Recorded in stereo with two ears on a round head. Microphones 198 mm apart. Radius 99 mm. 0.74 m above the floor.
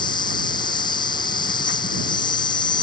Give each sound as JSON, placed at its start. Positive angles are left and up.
{"t": 0.0, "sound": "an insect", "side_deg": 20}